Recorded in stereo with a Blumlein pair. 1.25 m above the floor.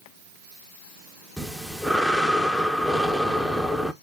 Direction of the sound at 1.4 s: 5° right.